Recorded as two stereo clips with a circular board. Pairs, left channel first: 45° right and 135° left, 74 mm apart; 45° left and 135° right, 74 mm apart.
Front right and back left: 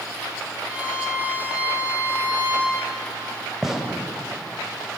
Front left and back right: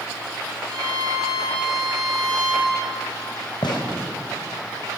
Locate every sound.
0.7 s a violin: 155° right, 7 m
3.6 s a gunshot: 50° left, 3.5 m